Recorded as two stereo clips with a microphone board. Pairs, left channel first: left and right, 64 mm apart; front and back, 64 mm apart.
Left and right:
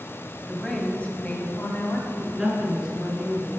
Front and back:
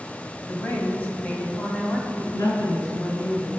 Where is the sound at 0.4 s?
10° left, 1.3 m; by 2.2 s 75° left, 1.5 m.